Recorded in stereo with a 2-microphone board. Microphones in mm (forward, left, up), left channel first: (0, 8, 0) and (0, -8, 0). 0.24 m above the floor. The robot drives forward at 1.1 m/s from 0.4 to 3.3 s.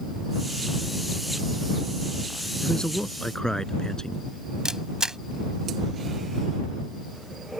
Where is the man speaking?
55° left (ahead or behind); by 4.2 s 45° left (ahead or behind).